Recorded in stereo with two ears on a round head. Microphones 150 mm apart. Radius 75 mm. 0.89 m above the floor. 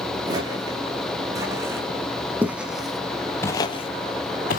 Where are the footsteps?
25° right (ahead or behind), 4.5 m; by 4.6 s 55° left (ahead or behind), 1.5 m.